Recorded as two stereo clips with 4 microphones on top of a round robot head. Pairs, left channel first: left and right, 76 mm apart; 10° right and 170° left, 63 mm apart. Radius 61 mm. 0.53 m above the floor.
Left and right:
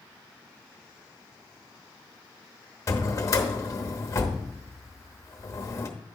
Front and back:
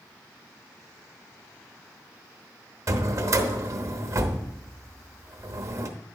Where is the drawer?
135° left, 0.9 m.